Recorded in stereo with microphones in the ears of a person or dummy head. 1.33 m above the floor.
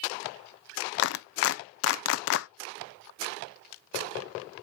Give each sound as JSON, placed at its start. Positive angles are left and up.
{"t": 1.0, "sound": "a clap", "side_deg": 70, "distance_m": 0.7}